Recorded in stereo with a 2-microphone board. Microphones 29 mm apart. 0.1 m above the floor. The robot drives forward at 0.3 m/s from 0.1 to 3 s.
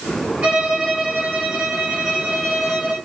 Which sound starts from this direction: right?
A violin, at 0.4 s.